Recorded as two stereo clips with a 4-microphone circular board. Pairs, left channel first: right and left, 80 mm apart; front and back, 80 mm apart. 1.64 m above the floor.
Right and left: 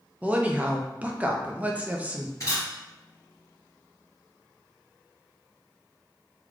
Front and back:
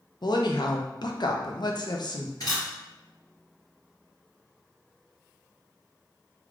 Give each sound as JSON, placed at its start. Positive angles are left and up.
{"t": 0.2, "sound": "a woman speaking", "azimuth_deg": 20, "distance_m": 0.6}
{"t": 2.4, "sound": "a camera shutter", "azimuth_deg": -35, "distance_m": 1.9}